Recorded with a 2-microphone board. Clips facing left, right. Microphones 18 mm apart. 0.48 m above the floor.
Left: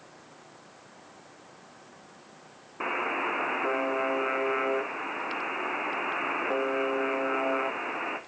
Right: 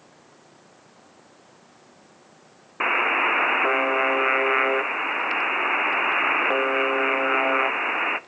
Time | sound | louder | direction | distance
2.8 | a buzzer | right 9 dB | 55° right (ahead or behind) | 0.6 m